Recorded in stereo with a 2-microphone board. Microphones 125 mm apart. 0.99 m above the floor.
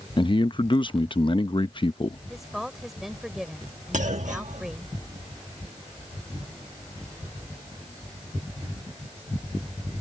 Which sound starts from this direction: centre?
A woman speaking, at 2.3 s.